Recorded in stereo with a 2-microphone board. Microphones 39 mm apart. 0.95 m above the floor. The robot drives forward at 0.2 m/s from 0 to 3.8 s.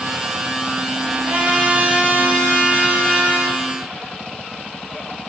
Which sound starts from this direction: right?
A trumpet, at 1.2 s.